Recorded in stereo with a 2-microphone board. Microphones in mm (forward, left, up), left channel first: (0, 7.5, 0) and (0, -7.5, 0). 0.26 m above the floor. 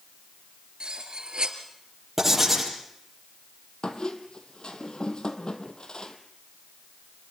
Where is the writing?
20° right (ahead or behind), 7 m.